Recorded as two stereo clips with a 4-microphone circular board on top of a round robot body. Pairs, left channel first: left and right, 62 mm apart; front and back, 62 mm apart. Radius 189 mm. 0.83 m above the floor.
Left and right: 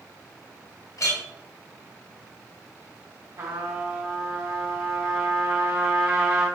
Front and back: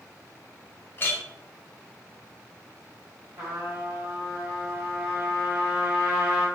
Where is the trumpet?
115° right, 0.9 m.